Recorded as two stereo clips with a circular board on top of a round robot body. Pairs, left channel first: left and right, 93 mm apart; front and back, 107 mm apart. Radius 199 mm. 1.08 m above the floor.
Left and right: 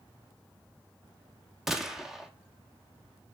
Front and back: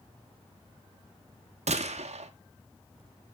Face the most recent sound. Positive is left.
turn(degrees=-175)